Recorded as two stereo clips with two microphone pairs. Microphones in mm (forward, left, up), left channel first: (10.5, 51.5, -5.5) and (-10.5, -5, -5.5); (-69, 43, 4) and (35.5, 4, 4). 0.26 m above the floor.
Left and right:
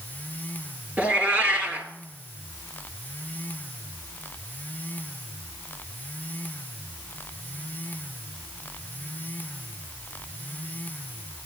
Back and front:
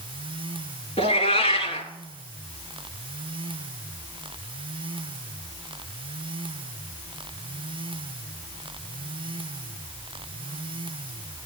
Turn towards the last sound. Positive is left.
turn(degrees=-175)